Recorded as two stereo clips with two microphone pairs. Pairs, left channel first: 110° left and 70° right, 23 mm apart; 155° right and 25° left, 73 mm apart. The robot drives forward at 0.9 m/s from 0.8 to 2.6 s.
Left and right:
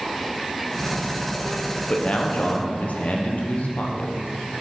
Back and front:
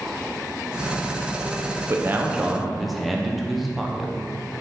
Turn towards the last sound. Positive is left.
turn(degrees=110)